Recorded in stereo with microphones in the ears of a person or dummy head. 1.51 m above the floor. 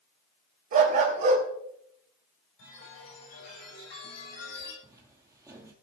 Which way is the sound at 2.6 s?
65° left (ahead or behind).